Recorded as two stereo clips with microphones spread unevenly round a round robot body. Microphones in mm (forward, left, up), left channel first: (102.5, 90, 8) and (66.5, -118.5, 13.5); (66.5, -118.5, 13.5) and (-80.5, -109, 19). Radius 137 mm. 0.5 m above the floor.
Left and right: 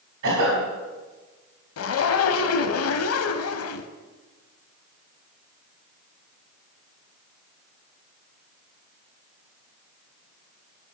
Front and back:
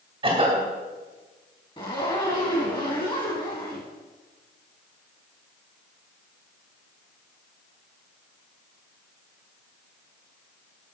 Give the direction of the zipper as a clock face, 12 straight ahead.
10 o'clock.